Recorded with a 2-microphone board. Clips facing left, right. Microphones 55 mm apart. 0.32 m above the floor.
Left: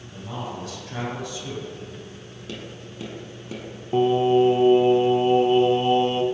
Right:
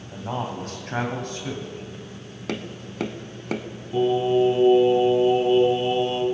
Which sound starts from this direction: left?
Singing, at 3.9 s.